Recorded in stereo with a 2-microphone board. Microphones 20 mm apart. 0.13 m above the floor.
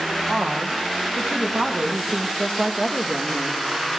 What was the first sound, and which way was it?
A woman speaking, 70° right (ahead or behind).